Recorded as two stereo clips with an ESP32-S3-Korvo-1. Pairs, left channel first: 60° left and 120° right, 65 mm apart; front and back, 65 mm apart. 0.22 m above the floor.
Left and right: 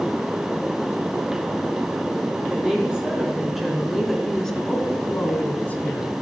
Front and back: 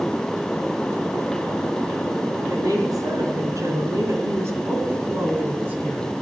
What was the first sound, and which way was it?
A woman speaking, 165° left.